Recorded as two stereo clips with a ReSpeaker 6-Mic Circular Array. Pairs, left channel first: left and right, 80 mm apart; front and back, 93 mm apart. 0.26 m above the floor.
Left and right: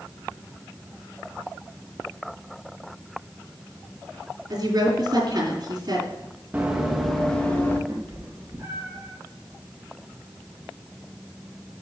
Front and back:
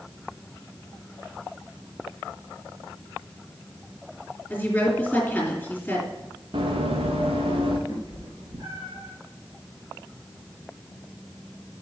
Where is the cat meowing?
140° right, 2.5 m.